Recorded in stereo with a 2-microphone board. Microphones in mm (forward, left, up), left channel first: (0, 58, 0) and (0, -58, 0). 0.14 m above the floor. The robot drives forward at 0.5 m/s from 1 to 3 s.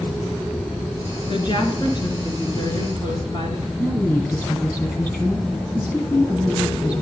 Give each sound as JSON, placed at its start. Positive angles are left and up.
{"t": 1.3, "sound": "a woman speaking", "side_deg": 45, "distance_m": 2.0}
{"t": 3.8, "sound": "a woman speaking", "side_deg": 20, "distance_m": 1.8}